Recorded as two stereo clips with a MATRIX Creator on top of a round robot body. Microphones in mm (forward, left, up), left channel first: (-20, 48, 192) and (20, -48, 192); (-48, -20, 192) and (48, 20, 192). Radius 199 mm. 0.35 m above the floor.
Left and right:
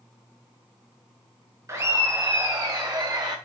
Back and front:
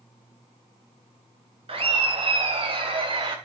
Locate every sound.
1.7 s laughter: 10° right, 4 m; by 3.4 s 20° right, 3.5 m